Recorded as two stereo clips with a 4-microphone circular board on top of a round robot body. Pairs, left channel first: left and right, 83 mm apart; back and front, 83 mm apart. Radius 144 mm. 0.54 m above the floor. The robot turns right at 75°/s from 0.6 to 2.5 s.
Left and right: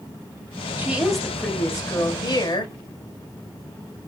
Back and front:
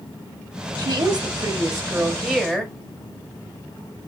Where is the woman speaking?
30° right, 1.1 m; by 2.7 s 100° left, 1.1 m.